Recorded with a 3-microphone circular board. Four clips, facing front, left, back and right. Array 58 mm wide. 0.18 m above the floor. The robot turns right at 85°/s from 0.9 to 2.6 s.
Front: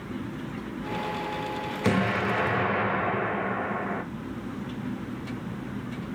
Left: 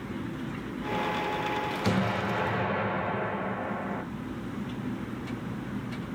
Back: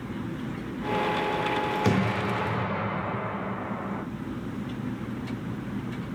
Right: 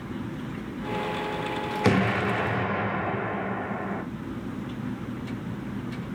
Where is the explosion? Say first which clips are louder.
Right 7 dB, front 1 dB; 85° right, 1.0 m; by 4.0 s 20° right, 1.0 m.